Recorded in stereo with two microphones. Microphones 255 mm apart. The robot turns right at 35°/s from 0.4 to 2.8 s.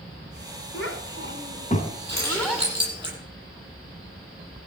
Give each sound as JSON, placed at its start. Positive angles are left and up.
{"t": 0.7, "sound": "a child speaking", "side_deg": 60, "distance_m": 1.8}
{"t": 2.1, "sound": "keys jangling", "side_deg": -40, "distance_m": 9.5}